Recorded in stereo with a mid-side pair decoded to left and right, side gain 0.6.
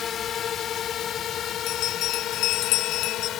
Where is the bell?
70° left.